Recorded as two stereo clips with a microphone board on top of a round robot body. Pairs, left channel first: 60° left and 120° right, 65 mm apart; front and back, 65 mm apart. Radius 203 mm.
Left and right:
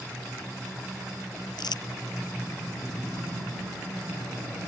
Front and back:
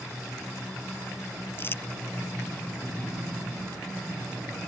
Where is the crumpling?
55° left.